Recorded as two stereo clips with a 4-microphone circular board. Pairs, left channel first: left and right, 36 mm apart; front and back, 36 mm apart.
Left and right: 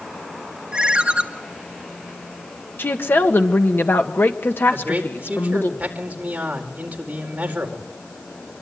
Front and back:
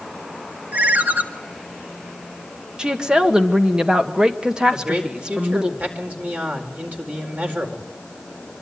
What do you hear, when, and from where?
0.7 s a ringtone: 150° right, 1.5 m
2.8 s a woman speaking: 110° left, 2.0 m
4.7 s a man speaking: 140° right, 4.5 m